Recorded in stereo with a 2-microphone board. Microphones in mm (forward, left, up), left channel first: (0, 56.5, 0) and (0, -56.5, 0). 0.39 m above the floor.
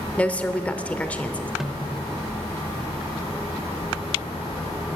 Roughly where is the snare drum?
Centre.